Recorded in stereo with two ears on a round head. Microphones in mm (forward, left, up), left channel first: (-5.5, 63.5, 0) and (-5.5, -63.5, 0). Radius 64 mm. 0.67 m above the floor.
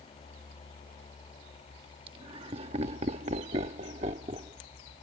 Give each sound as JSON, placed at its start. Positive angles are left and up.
{"t": 2.1, "sound": "laughter", "side_deg": -35}